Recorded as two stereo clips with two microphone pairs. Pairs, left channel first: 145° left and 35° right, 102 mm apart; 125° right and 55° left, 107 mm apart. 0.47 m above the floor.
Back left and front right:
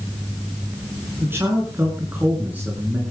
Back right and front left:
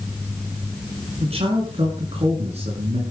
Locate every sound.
1.2 s a man speaking: 30° left, 6.5 m; by 3.0 s 40° left, 7 m